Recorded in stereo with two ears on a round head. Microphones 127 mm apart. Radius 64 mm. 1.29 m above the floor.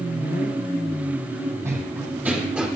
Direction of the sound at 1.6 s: 20° right (ahead or behind).